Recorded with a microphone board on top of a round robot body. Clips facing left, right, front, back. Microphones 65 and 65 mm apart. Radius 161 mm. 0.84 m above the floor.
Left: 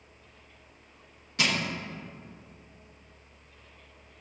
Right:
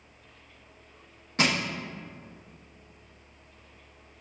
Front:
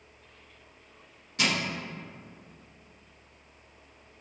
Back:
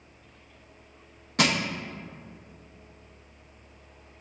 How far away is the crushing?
About 1.0 m.